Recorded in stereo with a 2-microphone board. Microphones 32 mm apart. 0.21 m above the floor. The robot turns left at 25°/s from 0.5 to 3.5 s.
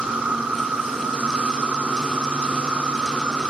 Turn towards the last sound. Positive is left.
turn(degrees=-125)